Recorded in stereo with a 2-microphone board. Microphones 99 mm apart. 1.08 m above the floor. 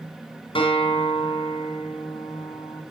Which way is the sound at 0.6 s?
65° left (ahead or behind).